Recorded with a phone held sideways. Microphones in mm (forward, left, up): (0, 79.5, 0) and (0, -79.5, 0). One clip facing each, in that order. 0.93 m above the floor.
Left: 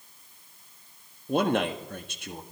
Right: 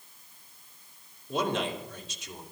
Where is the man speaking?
60° left (ahead or behind), 1.6 m.